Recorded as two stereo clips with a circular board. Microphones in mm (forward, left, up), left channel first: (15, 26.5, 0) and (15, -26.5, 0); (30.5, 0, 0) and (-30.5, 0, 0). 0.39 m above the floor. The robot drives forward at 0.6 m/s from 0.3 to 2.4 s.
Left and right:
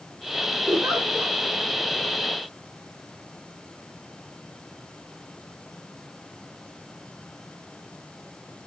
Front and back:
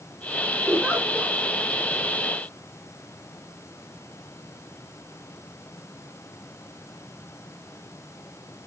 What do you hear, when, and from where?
0.7 s a giggle: 110° right, 10 m